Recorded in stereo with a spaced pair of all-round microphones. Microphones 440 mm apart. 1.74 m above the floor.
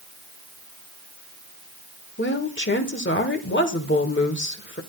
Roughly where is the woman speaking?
Left.